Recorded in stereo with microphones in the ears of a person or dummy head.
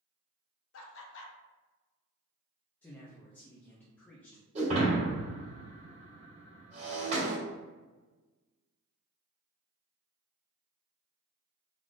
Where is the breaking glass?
35° right (ahead or behind), 1.9 m.